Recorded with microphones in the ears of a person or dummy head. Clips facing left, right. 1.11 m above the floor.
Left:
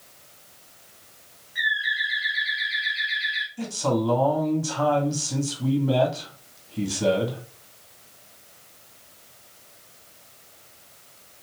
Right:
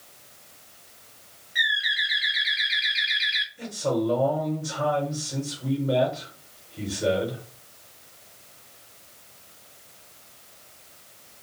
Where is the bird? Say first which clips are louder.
Left 1 dB; 25° right (ahead or behind), 0.6 m.